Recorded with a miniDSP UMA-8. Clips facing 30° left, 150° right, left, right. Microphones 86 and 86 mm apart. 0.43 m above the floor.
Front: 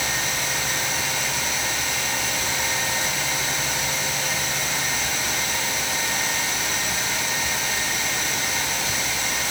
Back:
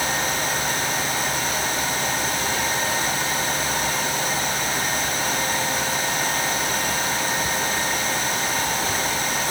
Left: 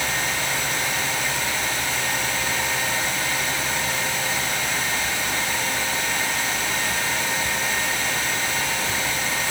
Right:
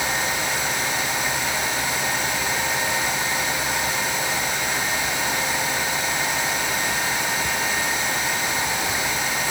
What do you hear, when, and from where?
Only background noise.